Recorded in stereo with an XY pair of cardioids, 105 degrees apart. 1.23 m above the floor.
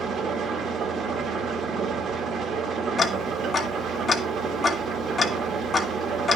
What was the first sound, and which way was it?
An engine running, 60° right.